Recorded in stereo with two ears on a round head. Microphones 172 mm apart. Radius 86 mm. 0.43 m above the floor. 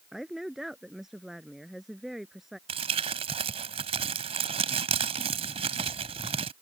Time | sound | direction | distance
0.1 | a woman speaking | centre (ahead or behind) | ?
2.7 | crumpling | 30° right (ahead or behind) | ?